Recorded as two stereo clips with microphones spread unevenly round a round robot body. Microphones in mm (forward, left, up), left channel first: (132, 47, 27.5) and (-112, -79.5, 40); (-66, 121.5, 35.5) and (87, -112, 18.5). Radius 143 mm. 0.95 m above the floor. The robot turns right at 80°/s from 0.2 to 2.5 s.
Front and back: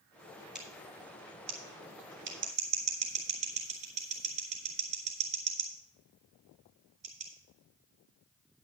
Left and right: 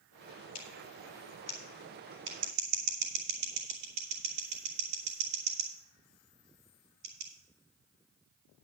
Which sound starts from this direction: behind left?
Scissors, at 0.6 s.